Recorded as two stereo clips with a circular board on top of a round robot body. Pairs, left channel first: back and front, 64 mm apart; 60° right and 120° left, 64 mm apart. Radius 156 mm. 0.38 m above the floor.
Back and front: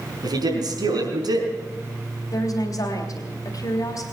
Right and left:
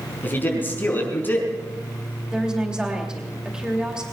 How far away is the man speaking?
About 5 m.